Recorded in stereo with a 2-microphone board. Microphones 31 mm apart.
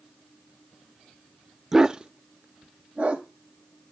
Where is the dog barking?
15° right (ahead or behind), 0.6 m; by 3.3 s 45° right (ahead or behind), 1.6 m.